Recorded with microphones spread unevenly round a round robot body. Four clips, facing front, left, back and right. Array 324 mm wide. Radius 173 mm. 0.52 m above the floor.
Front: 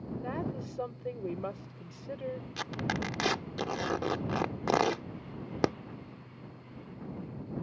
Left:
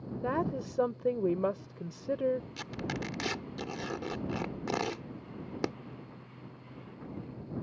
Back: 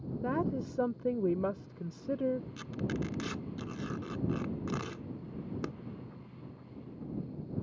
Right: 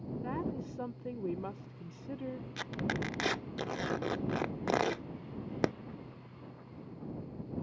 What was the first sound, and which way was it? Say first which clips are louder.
A woman speaking: left 7 dB, back 6 dB; 145° left.